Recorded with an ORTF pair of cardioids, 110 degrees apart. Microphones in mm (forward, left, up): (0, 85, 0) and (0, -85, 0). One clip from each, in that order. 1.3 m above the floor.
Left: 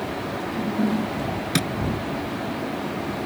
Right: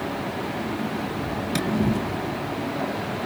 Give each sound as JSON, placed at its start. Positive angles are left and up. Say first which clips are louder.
{"t": 1.6, "sound": "tapping", "louder": "left 3 dB", "azimuth_deg": 35}